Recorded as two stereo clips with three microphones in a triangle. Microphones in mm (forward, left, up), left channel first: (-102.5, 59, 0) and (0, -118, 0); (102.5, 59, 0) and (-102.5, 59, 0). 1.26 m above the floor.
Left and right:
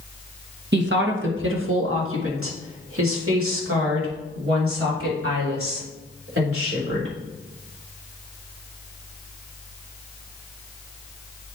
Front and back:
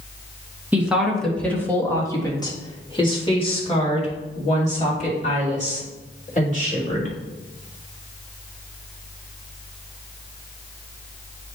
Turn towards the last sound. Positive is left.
turn(degrees=-50)